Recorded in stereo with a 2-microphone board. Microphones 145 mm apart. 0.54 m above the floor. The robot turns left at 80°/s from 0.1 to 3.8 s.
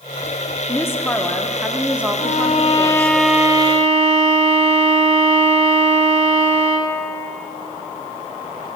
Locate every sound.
0.7 s a woman speaking: 20° left (ahead or behind), 0.7 m; by 3.1 s 15° right (ahead or behind), 0.7 m
2.2 s a violin: 80° left, 0.9 m; by 7.0 s 50° right, 0.9 m